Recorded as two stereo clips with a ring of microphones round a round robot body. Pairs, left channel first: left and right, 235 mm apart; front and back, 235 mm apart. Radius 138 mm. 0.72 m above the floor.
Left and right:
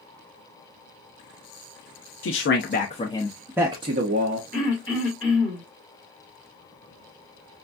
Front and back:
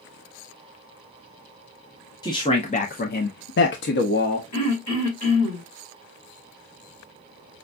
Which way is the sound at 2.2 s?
70° left.